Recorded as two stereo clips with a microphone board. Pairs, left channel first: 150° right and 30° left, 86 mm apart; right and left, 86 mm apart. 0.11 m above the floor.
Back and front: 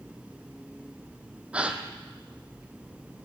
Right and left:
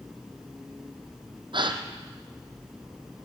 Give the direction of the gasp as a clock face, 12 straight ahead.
8 o'clock.